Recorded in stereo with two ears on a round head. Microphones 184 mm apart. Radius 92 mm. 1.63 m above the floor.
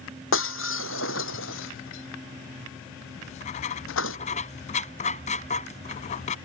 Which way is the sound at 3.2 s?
35° left (ahead or behind).